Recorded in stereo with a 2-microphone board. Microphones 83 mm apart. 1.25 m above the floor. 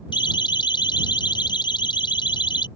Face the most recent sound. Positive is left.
turn(degrees=70)  # may be behind; listen again after turning